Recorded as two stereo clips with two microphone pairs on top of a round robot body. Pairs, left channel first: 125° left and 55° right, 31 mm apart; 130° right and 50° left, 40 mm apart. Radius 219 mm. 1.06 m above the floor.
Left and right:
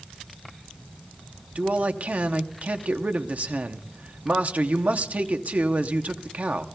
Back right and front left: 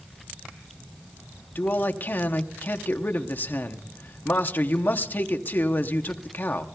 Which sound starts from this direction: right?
A man speaking, at 1.6 s.